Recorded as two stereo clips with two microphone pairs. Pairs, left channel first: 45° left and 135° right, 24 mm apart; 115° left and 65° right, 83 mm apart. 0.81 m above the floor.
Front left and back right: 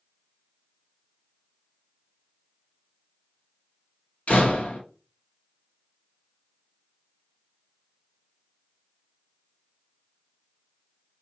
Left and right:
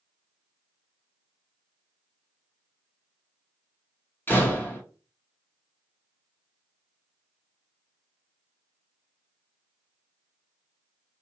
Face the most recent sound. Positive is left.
turn(degrees=50)